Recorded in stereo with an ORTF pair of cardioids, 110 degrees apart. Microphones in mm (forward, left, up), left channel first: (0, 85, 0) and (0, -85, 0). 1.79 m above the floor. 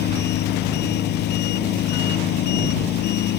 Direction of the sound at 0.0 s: 70° left.